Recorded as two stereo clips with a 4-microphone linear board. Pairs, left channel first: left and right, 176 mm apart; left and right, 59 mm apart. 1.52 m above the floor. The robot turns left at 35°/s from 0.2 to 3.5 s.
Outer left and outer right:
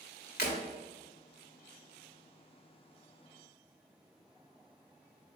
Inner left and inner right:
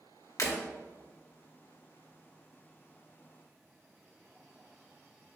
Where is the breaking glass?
65° left (ahead or behind), 1.7 m; by 0.6 s 60° left (ahead or behind), 1.7 m.